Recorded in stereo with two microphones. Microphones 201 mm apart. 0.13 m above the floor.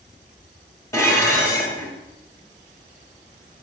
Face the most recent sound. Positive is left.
turn(degrees=15)  # may be behind; listen again after turning